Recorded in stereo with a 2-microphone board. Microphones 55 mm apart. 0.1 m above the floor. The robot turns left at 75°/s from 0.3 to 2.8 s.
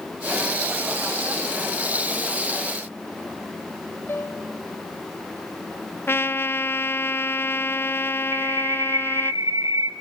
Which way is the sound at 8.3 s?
70° right (ahead or behind).